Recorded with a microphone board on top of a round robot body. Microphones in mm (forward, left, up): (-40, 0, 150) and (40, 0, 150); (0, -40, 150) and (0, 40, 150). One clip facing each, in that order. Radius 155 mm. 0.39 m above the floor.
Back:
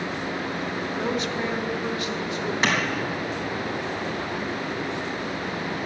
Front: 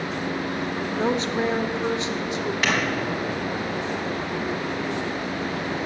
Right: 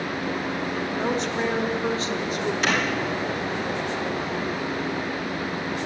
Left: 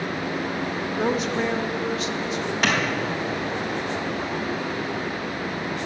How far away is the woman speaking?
About 1.0 m.